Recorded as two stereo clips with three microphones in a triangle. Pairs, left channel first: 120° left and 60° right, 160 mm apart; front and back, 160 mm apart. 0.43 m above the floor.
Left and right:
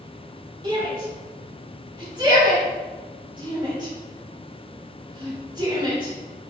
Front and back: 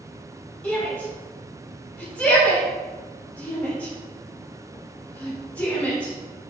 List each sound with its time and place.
0.6 s a shout: 70° right, 1.5 m